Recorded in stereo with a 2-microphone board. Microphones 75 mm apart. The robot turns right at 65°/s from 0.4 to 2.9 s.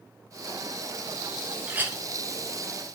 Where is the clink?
20° right (ahead or behind), 0.6 m; by 2.0 s 25° right (ahead or behind), 0.6 m.